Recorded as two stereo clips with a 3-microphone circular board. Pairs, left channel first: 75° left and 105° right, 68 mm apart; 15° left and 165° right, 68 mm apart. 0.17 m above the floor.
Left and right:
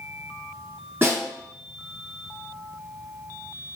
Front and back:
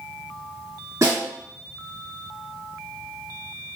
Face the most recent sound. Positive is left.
turn(degrees=-155)